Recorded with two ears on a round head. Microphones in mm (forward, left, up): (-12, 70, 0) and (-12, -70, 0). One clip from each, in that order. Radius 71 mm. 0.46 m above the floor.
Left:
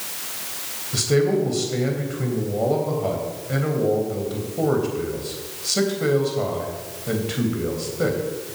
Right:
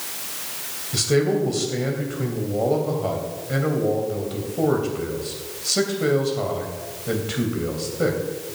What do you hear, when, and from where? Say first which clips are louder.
0.9 s a man speaking: left 1 dB; 5° right (ahead or behind), 3 m